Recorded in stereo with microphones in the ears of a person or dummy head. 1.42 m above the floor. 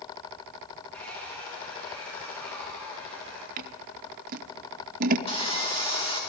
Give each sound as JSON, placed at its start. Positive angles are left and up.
{"t": 0.9, "sound": "a hair dryer", "side_deg": 5, "distance_m": 3.0}
{"t": 3.6, "sound": "scissors", "side_deg": -45, "distance_m": 0.7}
{"t": 5.3, "sound": "sawing", "side_deg": 25, "distance_m": 2.5}